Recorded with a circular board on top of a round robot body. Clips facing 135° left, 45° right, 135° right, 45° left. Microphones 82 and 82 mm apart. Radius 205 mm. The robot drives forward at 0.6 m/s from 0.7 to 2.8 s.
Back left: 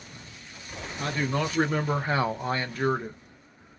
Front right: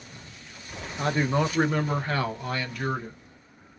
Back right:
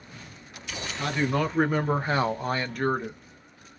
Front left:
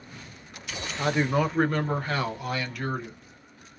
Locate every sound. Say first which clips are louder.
1.0 s a man speaking: front right 4 dB, front left 2 dB; 5° right, 0.8 m; by 3.2 s 175° right, 1.0 m